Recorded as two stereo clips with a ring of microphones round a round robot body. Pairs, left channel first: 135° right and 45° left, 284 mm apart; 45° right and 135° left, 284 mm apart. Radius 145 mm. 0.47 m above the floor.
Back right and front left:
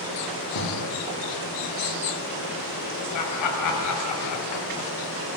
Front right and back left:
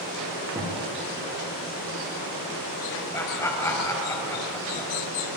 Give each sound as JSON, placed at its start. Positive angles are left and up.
{"t": 0.6, "sound": "a thud", "azimuth_deg": -150, "distance_m": 9.0}
{"t": 3.1, "sound": "laughter", "azimuth_deg": -125, "distance_m": 2.5}